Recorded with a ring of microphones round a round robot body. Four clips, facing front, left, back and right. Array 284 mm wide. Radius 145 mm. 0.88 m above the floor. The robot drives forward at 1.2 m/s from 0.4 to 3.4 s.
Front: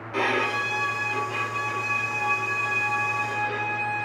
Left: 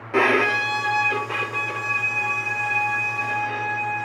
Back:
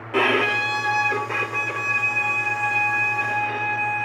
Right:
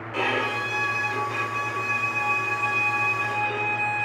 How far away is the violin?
About 1.3 m.